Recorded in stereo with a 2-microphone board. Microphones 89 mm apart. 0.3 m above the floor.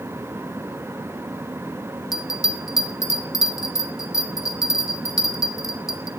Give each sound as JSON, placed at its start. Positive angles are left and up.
{"t": 2.1, "sound": "a bell", "side_deg": 40, "distance_m": 1.9}